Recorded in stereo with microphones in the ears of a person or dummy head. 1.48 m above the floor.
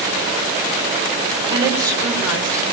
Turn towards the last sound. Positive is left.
turn(degrees=-15)  # may be behind; listen again after turning